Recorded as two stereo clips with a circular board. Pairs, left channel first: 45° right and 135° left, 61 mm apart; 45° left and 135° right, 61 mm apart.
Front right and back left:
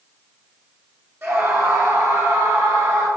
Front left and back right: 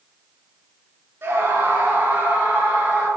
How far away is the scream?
About 2.5 m.